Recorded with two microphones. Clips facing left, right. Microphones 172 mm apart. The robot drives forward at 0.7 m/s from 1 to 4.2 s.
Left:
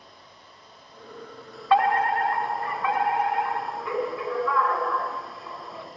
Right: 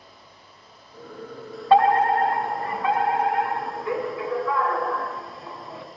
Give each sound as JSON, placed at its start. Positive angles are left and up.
{"t": 1.7, "sound": "a fire alarm", "side_deg": -30, "distance_m": 4.0}